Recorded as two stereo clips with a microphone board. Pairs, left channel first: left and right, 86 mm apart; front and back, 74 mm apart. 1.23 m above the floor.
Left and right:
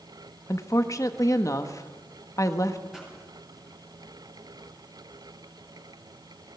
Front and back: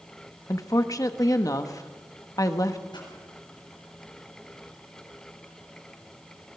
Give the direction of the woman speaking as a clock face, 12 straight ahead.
11 o'clock.